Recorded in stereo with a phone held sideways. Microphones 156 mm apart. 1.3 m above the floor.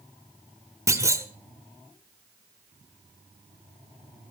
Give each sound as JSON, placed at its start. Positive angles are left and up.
{"t": 0.9, "sound": "a clunk", "side_deg": -20, "distance_m": 1.4}